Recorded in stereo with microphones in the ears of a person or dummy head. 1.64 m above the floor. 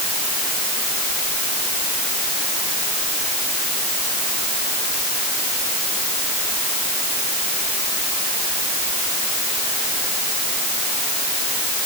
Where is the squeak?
I don't hear a squeak.